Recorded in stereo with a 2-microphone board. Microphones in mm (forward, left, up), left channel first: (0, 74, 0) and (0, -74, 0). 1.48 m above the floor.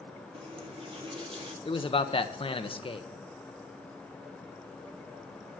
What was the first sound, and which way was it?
A running tap, 35° right (ahead or behind).